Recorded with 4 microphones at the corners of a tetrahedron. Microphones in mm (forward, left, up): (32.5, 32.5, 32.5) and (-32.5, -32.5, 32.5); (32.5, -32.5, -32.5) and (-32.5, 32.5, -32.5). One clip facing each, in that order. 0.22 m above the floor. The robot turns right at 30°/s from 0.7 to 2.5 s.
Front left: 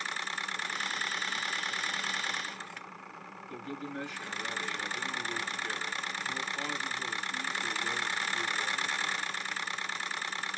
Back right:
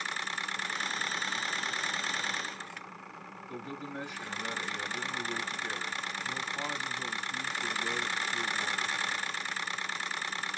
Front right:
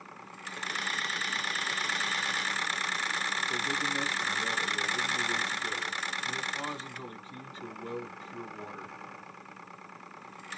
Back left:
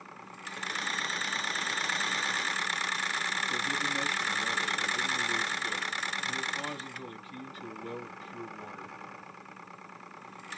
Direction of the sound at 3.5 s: 75° right.